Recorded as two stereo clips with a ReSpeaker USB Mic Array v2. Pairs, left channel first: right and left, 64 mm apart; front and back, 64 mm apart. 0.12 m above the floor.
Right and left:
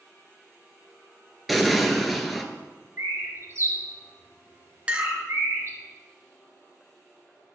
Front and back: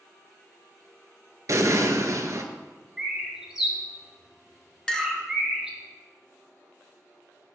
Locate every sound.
1.5 s an explosion: straight behind, 0.7 m
3.0 s a bird: 100° left, 1.6 m
4.9 s a clink: 60° left, 0.7 m